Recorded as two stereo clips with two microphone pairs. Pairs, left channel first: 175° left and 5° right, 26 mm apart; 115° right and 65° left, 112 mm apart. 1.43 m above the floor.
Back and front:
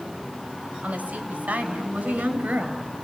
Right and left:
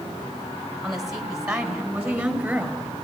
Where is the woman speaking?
20° right, 5.5 m; by 2.9 s 10° right, 7 m.